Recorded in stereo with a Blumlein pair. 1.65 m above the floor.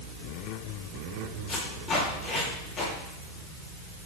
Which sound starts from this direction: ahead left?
Tape being pulled, at 1.5 s.